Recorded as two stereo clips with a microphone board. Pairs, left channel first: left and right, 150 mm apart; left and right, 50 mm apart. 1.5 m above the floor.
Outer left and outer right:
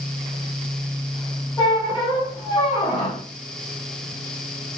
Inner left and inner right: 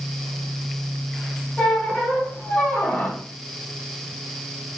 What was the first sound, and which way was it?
A squeak, 30° left (ahead or behind).